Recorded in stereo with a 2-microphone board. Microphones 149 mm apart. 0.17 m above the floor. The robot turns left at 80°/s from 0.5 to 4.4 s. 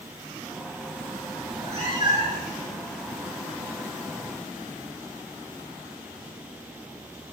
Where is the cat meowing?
90° right, 1.3 m; by 2.5 s 175° right, 1.3 m.